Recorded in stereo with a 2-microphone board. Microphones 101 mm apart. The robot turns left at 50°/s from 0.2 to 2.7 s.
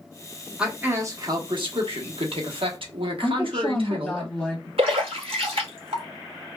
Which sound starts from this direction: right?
A splash, at 4.8 s.